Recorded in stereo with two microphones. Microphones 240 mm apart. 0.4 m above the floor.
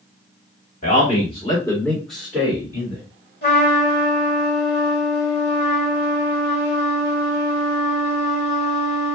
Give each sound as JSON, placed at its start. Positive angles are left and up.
{"t": 0.8, "sound": "a man speaking", "side_deg": 35, "distance_m": 1.5}
{"t": 3.4, "sound": "a trumpet", "side_deg": 45, "distance_m": 1.6}